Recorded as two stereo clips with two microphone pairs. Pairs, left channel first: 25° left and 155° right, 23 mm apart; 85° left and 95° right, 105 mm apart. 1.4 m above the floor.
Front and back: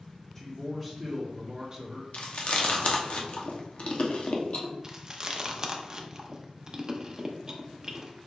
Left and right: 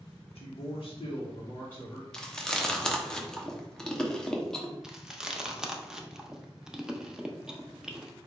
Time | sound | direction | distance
0.3 | a man speaking | 110° left | 1.0 m
2.1 | chewing | 5° left | 0.9 m
4.8 | chewing | 170° right | 0.6 m